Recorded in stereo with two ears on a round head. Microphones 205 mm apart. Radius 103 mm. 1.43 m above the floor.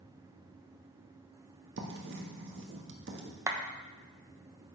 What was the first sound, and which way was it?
Writing, 55° right (ahead or behind).